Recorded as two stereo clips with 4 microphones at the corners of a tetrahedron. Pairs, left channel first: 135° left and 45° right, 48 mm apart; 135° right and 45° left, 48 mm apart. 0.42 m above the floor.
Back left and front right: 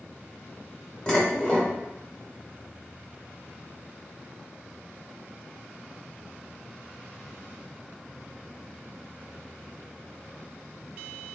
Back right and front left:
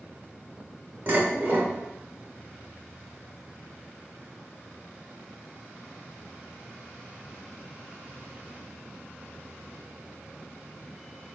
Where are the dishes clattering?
70° left, 0.9 m.